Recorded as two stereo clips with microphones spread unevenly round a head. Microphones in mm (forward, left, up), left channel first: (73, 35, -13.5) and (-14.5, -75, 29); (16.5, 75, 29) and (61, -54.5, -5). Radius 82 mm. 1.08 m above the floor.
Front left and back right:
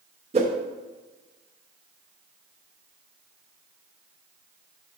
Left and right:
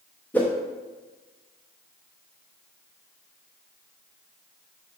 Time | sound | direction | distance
0.3 | a whoosh | 175° right | 0.6 m